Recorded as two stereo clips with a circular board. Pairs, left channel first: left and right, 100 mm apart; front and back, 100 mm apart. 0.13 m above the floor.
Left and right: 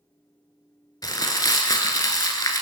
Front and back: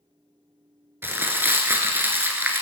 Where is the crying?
No crying in this recording.